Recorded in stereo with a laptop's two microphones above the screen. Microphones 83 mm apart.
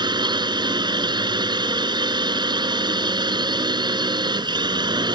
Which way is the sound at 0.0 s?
65° right (ahead or behind).